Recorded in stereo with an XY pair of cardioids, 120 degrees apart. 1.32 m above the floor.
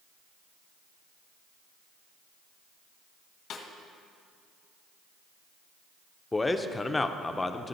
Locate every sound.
3.5 s a snare drum: 65° left, 1.4 m
6.3 s a man speaking: 15° left, 0.5 m